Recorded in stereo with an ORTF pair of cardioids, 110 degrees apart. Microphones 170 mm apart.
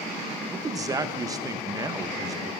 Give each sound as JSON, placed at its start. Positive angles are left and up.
{"t": 0.5, "sound": "a man speaking", "azimuth_deg": -20, "distance_m": 0.8}